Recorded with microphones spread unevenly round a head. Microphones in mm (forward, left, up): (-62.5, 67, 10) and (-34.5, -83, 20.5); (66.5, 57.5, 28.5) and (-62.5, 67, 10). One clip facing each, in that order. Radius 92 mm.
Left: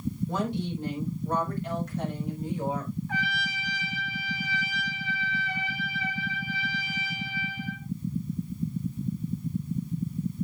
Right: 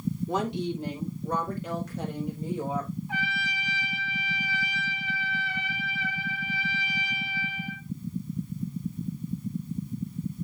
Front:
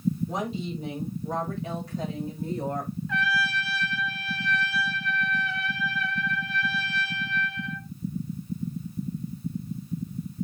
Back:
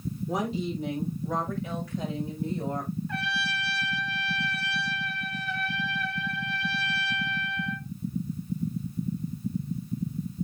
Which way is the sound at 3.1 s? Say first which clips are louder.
Left 1 dB, front 4 dB; 5° right.